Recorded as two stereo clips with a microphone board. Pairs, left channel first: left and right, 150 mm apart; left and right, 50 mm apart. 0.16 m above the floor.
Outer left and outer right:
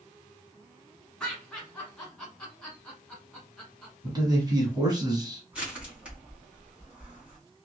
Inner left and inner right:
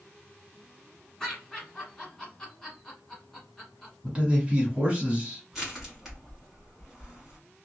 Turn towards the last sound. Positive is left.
turn(degrees=-10)  # may be behind; listen again after turning